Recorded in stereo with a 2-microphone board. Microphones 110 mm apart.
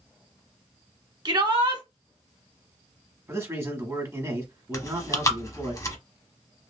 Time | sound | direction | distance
1.2 | a shout | 45° right (ahead or behind) | 1.3 m
3.3 | a man speaking | 25° right (ahead or behind) | 1.5 m
4.7 | chewing | 30° left (ahead or behind) | 0.8 m